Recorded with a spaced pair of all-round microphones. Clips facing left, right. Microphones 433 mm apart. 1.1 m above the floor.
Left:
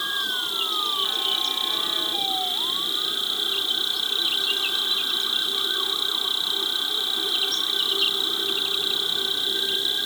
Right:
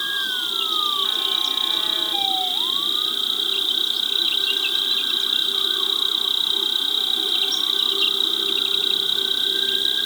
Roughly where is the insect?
Right.